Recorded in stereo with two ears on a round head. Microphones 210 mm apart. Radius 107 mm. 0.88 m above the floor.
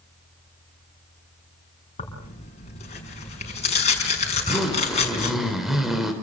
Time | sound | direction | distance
2.0 | tearing paper | 30° left (ahead or behind) | 6 m
4.3 | a zipper | centre (ahead or behind) | 4 m